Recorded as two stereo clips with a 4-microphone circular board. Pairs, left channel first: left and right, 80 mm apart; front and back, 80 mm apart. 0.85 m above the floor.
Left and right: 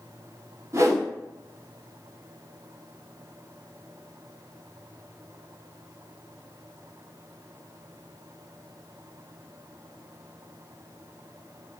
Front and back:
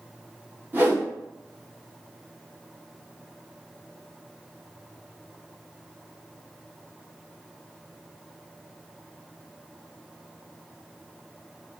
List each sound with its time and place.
0.7 s a whoosh: 125° right, 0.7 m